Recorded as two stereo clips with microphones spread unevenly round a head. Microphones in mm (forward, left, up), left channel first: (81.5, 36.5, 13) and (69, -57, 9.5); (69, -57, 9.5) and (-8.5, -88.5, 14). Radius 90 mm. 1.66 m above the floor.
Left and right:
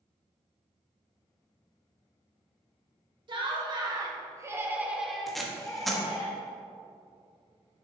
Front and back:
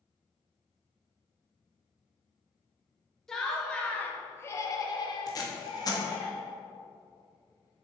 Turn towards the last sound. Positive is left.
turn(degrees=-5)